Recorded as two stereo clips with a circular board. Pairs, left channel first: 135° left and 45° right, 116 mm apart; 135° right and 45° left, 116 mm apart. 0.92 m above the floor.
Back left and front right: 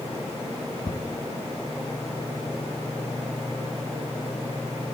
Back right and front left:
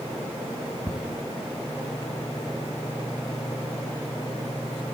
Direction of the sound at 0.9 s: 150° left.